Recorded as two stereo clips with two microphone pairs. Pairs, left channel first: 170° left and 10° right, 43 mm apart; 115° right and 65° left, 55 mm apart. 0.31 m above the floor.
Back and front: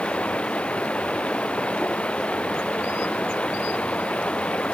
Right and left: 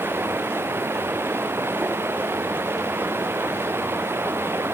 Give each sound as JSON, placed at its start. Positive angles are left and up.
{"t": 0.0, "sound": "running water", "azimuth_deg": 105}